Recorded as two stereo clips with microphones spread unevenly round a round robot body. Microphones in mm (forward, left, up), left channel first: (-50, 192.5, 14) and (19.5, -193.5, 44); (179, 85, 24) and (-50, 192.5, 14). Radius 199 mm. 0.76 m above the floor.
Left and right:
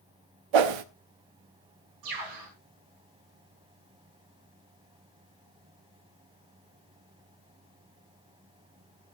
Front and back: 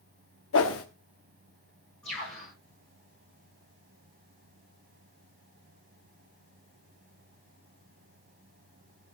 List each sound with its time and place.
0.5 s a whoosh: 70° right, 1.0 m
2.0 s a bird: 115° right, 9 m